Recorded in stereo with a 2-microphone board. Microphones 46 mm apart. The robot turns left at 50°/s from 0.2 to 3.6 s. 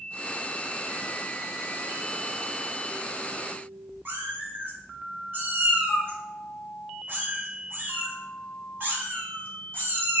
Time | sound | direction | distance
4.0 | a cat meowing | 50° right (ahead or behind) | 1.5 m